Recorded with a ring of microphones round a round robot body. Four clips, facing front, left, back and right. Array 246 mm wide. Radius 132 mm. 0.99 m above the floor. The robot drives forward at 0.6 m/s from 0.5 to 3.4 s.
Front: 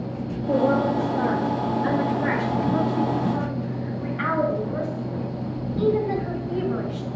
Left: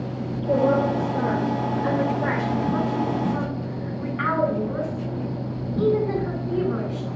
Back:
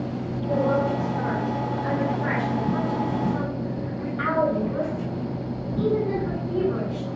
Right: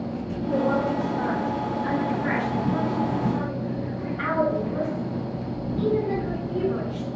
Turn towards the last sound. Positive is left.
turn(degrees=80)